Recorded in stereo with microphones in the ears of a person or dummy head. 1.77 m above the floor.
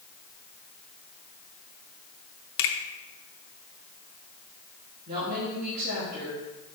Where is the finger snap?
65° left (ahead or behind), 0.8 m.